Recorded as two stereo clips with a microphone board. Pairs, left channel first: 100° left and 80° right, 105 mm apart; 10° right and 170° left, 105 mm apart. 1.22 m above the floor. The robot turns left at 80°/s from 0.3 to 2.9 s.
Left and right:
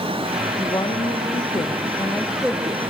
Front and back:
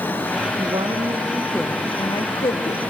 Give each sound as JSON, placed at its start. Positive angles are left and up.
{"t": 0.6, "sound": "a woman speaking", "azimuth_deg": 150, "distance_m": 1.2}